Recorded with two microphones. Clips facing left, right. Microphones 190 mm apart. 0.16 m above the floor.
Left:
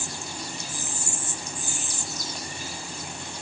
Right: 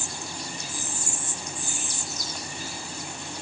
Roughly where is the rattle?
No rattle in this recording.